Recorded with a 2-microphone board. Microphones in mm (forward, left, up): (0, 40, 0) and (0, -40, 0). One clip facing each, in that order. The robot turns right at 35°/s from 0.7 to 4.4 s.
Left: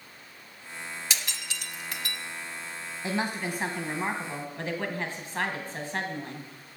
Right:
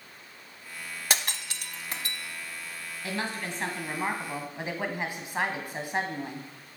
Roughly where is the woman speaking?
Behind left.